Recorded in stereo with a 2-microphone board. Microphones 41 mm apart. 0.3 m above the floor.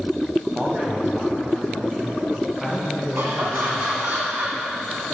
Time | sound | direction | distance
0.6 | a man speaking | 30° right (ahead or behind) | 1.4 m
3.1 | laughter | 55° right (ahead or behind) | 1.8 m